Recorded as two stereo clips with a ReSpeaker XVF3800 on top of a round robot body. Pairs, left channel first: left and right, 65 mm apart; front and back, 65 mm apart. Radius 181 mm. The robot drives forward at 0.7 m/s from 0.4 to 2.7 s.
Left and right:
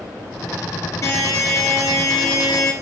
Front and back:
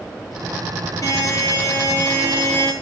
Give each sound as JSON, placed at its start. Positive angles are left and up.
{"t": 1.0, "sound": "a buzzer", "azimuth_deg": 45, "distance_m": 3.5}